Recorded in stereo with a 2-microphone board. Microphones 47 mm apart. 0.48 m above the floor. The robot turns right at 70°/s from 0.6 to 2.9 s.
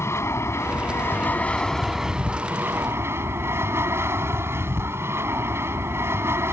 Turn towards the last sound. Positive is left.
turn(degrees=-110)